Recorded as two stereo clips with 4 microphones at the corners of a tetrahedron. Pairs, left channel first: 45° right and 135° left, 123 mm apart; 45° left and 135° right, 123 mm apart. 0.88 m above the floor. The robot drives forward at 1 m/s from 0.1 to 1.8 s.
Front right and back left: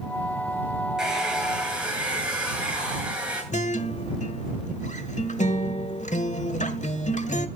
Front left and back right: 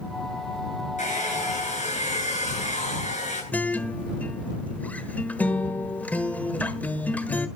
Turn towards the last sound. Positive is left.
turn(degrees=-30)